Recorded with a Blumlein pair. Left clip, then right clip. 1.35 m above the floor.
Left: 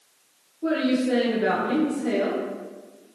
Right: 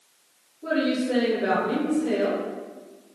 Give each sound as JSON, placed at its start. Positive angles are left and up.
{"t": 0.6, "sound": "a woman speaking", "azimuth_deg": 30, "distance_m": 1.2}